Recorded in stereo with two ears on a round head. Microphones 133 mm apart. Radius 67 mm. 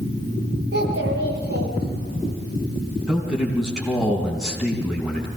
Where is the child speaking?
80° right, 7 m.